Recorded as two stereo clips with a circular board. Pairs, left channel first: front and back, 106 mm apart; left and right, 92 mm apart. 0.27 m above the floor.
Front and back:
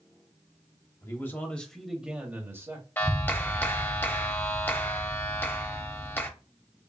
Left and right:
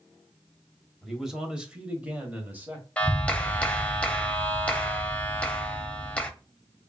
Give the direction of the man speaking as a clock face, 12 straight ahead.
12 o'clock.